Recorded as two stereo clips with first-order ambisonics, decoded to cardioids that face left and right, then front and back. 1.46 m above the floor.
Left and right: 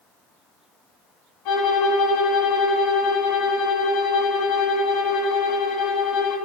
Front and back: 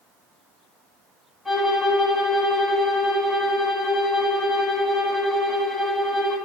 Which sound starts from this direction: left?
A violin, at 1.4 s.